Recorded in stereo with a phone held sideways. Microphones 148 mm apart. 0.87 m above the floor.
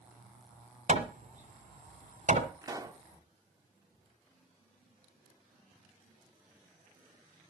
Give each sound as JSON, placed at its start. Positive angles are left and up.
{"t": 0.9, "sound": "hammering", "side_deg": -60, "distance_m": 1.3}
{"t": 2.6, "sound": "a pop", "side_deg": -25, "distance_m": 0.7}